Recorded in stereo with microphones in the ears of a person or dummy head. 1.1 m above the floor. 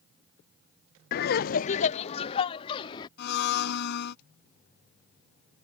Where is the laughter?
45° left (ahead or behind); by 3.1 s 30° left (ahead or behind).